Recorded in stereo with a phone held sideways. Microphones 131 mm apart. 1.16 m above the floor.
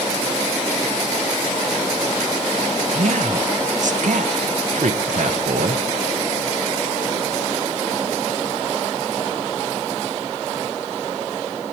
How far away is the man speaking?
About 0.8 m.